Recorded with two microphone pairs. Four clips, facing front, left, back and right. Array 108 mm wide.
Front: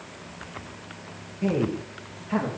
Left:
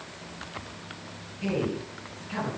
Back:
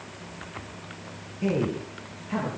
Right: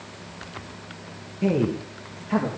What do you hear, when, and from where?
1.4 s a man speaking: 80° right, 2.5 m; by 2.5 s 75° right, 4 m